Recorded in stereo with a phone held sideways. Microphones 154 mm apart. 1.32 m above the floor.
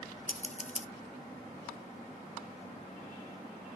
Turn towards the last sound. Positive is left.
turn(degrees=50)  # may be behind; listen again after turning